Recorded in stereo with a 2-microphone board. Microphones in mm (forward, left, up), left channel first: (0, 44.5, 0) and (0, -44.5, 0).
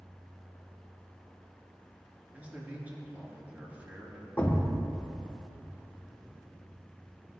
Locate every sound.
2.3 s a man speaking: 20° right (ahead or behind), 3 m
4.4 s a thud: 15° left (ahead or behind), 1.5 m